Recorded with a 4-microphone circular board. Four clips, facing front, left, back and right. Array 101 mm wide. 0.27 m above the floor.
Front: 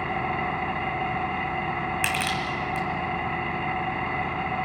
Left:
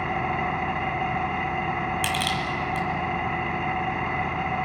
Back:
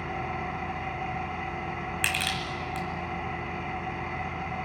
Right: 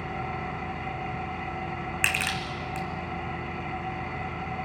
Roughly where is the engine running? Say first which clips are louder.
Left 7 dB, front 5 dB; ahead left.